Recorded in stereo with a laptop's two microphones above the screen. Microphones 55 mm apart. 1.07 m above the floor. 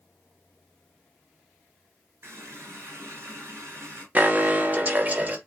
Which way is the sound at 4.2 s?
30° right (ahead or behind).